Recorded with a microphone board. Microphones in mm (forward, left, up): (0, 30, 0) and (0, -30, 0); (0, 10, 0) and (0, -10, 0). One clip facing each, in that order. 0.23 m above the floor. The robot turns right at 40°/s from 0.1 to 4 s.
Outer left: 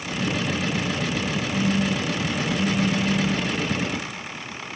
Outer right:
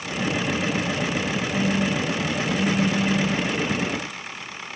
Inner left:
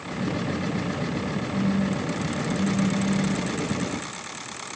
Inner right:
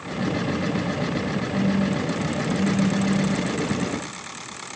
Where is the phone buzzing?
20° right (ahead or behind), 0.7 m.